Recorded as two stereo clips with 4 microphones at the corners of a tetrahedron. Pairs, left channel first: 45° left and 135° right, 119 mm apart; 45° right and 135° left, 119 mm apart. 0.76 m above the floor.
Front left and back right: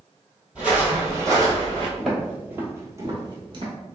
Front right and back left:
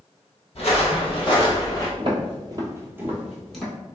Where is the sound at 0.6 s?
55° right, 1.3 m; by 1.9 s 105° right, 1.1 m.